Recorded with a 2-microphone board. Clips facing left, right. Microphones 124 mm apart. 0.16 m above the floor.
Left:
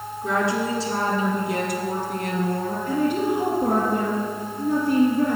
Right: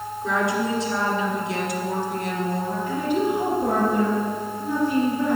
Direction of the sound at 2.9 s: 50° left (ahead or behind).